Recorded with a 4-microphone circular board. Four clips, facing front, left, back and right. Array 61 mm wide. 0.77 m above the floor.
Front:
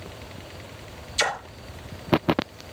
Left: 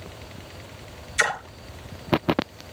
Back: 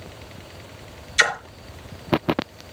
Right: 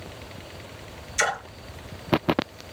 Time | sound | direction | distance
1.2 | a splash | 165° left | 3.5 m